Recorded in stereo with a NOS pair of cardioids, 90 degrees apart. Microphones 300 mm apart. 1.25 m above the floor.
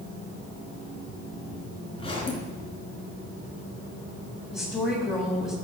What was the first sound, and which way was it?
A zipper, 20° left.